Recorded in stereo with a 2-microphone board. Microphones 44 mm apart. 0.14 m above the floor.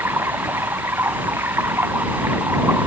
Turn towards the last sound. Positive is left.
turn(degrees=-75)  # may be behind; listen again after turning